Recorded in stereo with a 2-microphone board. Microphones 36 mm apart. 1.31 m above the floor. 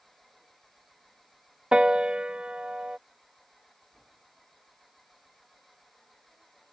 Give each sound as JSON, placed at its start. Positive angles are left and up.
{"t": 0.0, "sound": "an engine running", "side_deg": 5}
{"t": 1.7, "sound": "a piano", "side_deg": -30}